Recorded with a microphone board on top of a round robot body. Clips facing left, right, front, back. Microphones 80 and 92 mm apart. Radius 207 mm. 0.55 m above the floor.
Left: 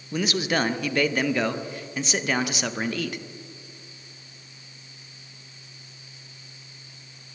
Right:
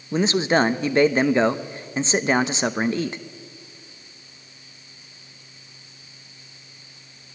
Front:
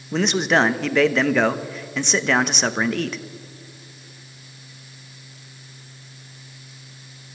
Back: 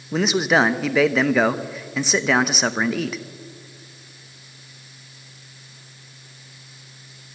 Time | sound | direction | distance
0.1 | a man speaking | 100° right | 1.1 m